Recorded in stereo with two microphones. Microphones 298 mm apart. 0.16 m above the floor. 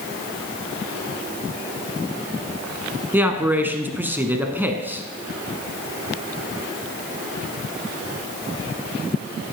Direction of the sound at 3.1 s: 5° right (ahead or behind).